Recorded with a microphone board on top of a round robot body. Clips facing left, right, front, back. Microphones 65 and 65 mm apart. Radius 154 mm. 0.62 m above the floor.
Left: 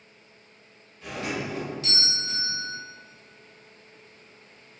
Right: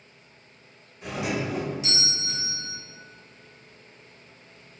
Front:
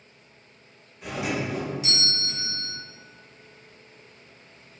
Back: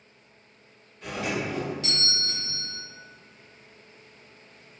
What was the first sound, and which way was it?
A doorbell, 50° right.